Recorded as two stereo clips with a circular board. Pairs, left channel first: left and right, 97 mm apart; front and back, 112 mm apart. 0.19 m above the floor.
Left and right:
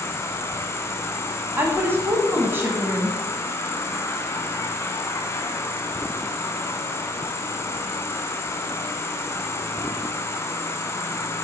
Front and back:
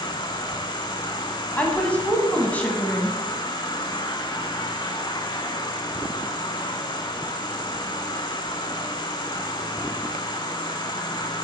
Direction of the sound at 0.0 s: 35° left.